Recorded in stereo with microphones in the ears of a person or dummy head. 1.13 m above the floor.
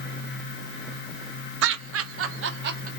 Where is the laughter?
70° right (ahead or behind), 0.8 m; by 2.9 s 45° right (ahead or behind), 0.6 m.